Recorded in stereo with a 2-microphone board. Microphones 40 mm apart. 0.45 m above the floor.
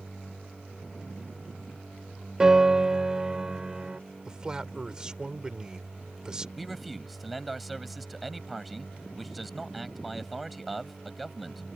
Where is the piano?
20° right (ahead or behind).